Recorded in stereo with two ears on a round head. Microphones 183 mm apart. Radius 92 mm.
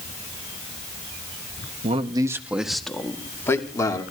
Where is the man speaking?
35° right (ahead or behind), 1.0 m; by 4.0 s 20° left (ahead or behind), 2.5 m.